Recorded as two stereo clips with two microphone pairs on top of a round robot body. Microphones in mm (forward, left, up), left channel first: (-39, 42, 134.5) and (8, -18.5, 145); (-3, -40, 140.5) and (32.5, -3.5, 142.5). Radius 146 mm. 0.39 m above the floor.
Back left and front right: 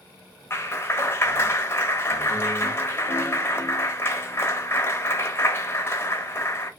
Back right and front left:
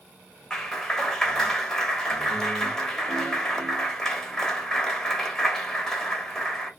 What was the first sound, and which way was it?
A clap, 150° left.